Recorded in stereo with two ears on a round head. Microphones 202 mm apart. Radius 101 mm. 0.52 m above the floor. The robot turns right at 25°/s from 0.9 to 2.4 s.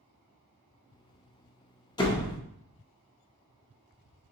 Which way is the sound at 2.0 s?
20° left (ahead or behind).